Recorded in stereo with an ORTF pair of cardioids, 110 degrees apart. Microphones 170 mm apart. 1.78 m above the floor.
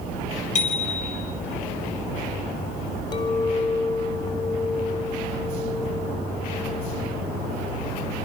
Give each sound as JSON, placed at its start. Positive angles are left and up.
{"t": 0.6, "sound": "a bicycle bell", "azimuth_deg": 45, "distance_m": 7.0}
{"t": 3.1, "sound": "a clink", "azimuth_deg": 25, "distance_m": 4.0}